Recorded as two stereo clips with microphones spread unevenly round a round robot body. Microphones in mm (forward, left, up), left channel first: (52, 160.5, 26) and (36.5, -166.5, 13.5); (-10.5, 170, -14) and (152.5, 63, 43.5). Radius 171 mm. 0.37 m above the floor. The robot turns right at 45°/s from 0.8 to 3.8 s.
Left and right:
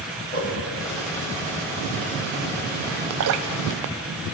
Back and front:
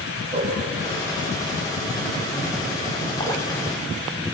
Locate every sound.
0.3 s a whoosh: 25° left, 8.5 m
3.2 s dripping: 140° right, 1.0 m; by 3.5 s 130° right, 1.0 m